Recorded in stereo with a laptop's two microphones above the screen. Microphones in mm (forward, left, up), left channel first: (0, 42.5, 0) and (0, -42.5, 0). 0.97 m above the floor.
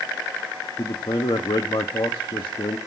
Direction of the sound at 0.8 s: 85° left.